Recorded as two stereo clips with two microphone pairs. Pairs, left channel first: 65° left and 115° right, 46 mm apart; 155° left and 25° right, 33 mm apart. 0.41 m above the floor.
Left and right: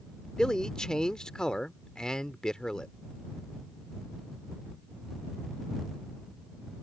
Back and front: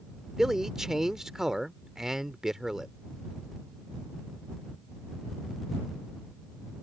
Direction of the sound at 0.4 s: 25° left.